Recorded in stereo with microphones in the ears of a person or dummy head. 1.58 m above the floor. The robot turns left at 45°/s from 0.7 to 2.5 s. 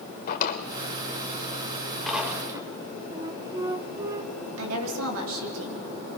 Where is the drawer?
50° left (ahead or behind), 2 m; by 2.7 s 15° right (ahead or behind), 2 m.